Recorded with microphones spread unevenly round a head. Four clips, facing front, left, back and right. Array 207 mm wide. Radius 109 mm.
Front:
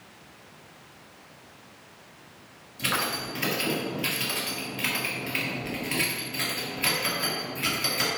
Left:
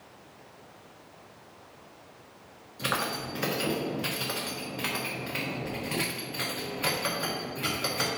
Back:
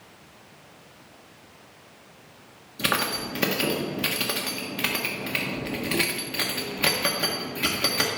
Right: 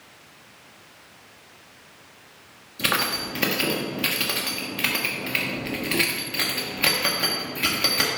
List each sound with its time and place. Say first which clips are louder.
2.8 s keys jangling: right 4 dB, back 3 dB; 145° right, 1.4 m